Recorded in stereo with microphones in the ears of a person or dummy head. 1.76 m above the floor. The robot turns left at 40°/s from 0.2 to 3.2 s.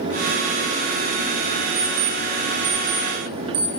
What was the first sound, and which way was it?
An alarm clock, 5° right (ahead or behind).